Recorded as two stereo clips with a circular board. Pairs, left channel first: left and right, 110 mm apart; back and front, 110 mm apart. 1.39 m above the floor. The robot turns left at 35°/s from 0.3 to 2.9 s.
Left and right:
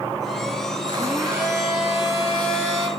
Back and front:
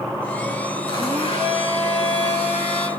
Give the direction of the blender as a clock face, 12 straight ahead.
5 o'clock.